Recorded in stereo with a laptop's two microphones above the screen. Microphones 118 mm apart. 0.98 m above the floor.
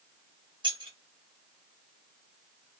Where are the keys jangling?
45° right (ahead or behind), 0.6 m.